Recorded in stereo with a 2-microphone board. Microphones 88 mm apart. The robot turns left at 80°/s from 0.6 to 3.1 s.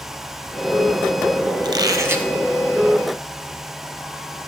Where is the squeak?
110° right, 0.7 m; by 2.3 s 165° right, 0.7 m.